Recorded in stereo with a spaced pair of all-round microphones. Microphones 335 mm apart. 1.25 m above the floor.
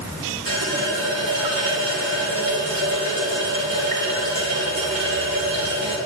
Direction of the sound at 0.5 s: 75° right (ahead or behind).